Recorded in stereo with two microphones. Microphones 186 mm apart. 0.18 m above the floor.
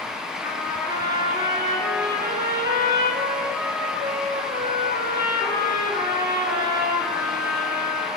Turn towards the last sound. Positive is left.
turn(degrees=-15)  # may be behind; listen again after turning